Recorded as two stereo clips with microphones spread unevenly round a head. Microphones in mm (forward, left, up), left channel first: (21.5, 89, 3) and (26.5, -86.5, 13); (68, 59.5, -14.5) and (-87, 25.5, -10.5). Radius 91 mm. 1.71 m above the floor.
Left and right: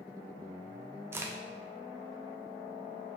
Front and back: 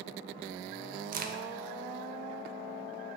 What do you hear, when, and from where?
1.1 s a crack: 165° right, 0.6 m